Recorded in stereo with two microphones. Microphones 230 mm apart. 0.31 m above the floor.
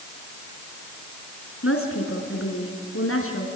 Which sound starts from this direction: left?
A woman speaking, at 1.6 s.